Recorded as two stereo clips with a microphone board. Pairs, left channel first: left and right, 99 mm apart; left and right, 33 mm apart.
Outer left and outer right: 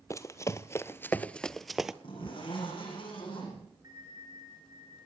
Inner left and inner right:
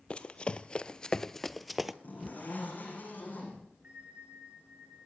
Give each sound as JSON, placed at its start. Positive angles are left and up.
{"t": 0.1, "sound": "running footsteps", "side_deg": 30, "distance_m": 0.9}
{"t": 2.0, "sound": "a zipper", "side_deg": 60, "distance_m": 10.0}
{"t": 3.8, "sound": "a bell", "side_deg": -40, "distance_m": 4.5}